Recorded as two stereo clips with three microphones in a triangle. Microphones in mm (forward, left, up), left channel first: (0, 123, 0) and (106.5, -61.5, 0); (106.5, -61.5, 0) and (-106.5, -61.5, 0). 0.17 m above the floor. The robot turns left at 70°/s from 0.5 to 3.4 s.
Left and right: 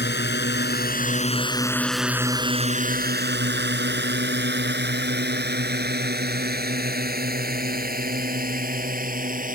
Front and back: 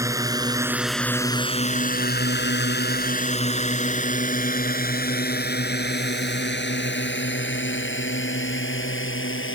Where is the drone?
110° left; by 9.6 s 10° right.